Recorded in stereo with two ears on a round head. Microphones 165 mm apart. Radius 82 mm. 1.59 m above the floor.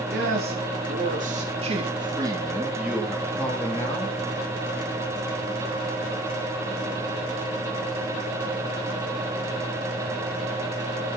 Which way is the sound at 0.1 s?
65° right (ahead or behind).